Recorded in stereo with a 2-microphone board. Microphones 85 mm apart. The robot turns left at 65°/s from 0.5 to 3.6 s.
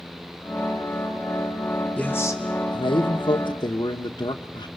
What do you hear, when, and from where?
2.0 s a man speaking: 170° left, 1.1 m; by 4.7 s 65° left, 1.1 m